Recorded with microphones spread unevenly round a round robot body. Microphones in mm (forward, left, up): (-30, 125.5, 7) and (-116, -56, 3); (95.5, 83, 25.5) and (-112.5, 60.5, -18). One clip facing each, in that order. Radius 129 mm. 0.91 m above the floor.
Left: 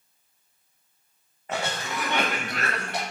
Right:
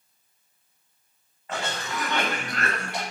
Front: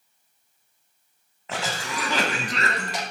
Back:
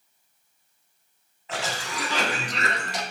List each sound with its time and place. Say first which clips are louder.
1.5 s a cough: left 1 dB, front 1 dB; 5° left, 0.8 m